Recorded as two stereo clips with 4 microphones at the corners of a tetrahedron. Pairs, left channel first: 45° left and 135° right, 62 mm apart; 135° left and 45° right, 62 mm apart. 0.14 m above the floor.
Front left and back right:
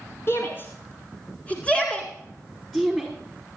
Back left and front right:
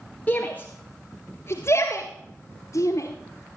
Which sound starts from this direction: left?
A shout, at 0.3 s.